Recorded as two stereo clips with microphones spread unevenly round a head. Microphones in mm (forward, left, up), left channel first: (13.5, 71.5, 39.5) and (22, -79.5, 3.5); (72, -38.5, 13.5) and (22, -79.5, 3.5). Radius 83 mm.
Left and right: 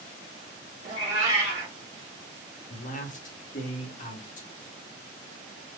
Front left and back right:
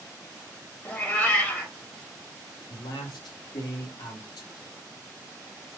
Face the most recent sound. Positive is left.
turn(degrees=50)